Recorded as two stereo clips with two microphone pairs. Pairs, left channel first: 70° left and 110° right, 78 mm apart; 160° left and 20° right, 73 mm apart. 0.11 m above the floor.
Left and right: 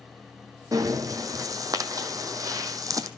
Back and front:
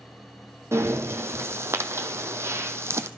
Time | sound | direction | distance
0.7 | breathing | 75° right | 0.6 m